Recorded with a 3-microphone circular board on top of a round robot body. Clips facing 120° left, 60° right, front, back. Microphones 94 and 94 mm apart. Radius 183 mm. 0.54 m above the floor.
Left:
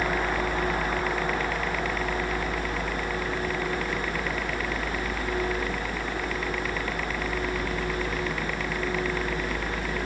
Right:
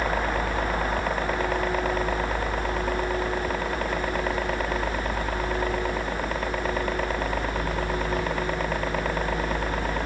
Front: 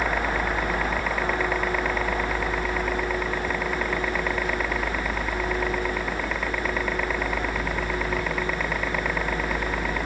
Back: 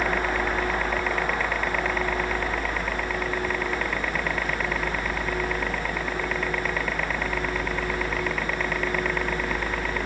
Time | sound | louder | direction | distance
0.0 | a helicopter | right 1 dB, even | 80° right | ?